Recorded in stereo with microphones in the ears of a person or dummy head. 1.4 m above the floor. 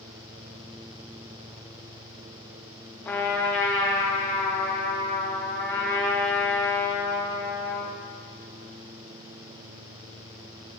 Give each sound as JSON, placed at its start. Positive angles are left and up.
{"t": 3.0, "sound": "a trumpet", "side_deg": 10, "distance_m": 0.9}